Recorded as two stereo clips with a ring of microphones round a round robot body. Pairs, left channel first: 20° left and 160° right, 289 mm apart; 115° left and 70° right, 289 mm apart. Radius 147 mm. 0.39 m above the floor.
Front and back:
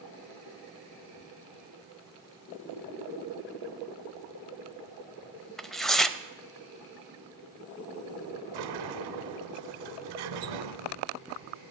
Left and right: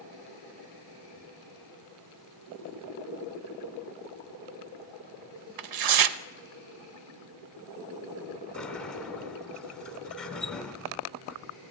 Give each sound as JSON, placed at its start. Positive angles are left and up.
{"t": 5.6, "sound": "tearing paper", "azimuth_deg": -65, "distance_m": 0.7}
{"t": 8.5, "sound": "a sliding door", "azimuth_deg": -160, "distance_m": 1.0}